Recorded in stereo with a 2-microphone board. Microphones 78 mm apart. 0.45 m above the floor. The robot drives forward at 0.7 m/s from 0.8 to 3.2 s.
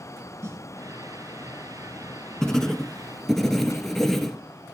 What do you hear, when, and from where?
0.4 s a snare drum: 40° right (ahead or behind), 1.8 m
2.4 s writing: 10° left (ahead or behind), 0.7 m; by 4.4 s 5° left (ahead or behind), 1.2 m